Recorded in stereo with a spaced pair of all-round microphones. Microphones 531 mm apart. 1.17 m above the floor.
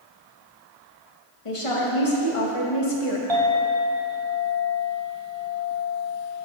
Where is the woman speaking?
85° left, 1.2 m.